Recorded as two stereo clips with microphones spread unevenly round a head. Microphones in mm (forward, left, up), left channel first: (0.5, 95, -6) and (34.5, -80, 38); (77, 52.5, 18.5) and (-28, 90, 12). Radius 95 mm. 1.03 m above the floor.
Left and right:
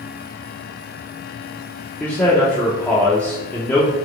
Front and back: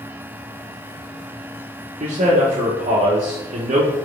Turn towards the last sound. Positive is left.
turn(degrees=175)